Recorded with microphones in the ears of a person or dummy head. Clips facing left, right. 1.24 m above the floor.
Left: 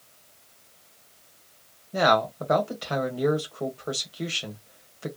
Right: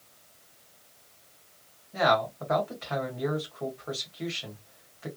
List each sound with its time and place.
1.9 s a man speaking: 40° left (ahead or behind), 1.8 m